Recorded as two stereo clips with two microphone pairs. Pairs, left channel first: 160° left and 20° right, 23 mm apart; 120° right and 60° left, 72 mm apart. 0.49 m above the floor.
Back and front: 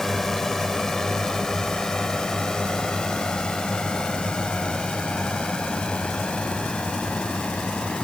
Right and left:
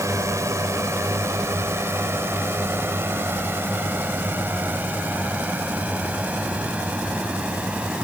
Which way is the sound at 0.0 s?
90° left.